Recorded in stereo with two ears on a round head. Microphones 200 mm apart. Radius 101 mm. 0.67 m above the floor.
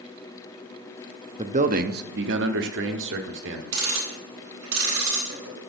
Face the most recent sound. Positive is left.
turn(degrees=-75)  # may be behind; listen again after turning